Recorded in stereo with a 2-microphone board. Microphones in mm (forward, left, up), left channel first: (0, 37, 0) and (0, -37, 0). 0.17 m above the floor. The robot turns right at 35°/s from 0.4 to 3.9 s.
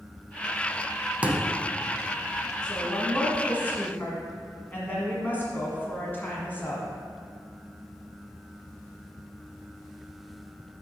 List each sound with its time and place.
1.2 s a thud: 20° right (ahead or behind), 0.6 m; by 1.6 s 15° right (ahead or behind), 0.6 m
2.6 s a woman speaking: 10° left (ahead or behind), 1.3 m; by 6.9 s 25° left (ahead or behind), 1.3 m